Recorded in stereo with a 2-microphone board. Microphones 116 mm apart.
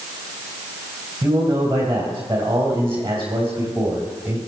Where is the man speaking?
30° right (ahead or behind), 2.5 m.